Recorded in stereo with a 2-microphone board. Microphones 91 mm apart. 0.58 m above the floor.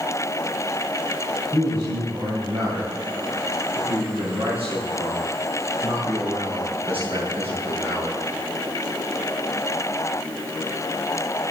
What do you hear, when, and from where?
1.5 s a man speaking: 55° right (ahead or behind), 3.5 m; by 8.2 s 80° right, 7.5 m